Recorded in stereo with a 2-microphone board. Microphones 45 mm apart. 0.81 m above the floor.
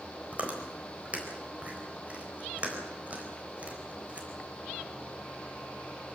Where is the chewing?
30° right (ahead or behind), 4 m.